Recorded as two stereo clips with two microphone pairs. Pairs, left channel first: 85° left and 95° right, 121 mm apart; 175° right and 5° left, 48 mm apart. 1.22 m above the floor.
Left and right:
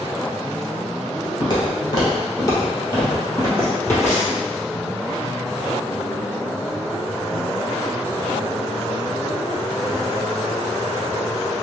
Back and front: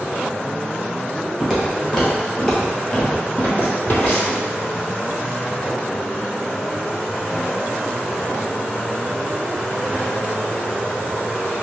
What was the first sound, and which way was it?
Footsteps, 95° left.